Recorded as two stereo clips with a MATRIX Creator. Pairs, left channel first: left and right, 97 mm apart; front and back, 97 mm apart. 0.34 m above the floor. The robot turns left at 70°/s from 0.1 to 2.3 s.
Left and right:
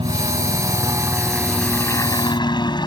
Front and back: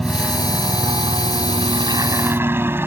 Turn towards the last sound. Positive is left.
turn(degrees=115)